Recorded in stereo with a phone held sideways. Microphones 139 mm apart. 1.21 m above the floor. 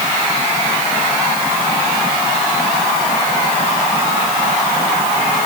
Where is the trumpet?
I don't hear a trumpet.